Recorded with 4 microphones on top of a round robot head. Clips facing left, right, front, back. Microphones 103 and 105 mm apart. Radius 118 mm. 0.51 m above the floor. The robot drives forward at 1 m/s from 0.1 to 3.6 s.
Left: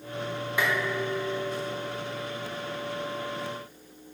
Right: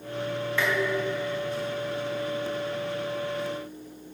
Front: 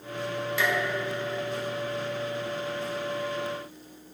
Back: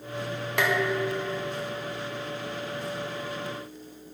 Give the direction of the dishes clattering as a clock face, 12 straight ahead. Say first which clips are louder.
Right 1 dB, back 4 dB; 6 o'clock.